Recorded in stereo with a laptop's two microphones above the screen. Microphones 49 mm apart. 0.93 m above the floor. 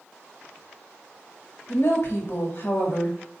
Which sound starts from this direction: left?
A woman speaking, at 1.7 s.